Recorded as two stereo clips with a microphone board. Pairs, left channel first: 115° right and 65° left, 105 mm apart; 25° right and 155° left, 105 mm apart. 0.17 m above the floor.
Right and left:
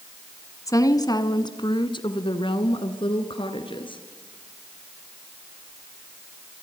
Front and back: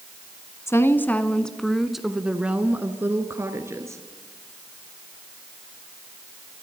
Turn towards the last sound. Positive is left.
turn(degrees=-140)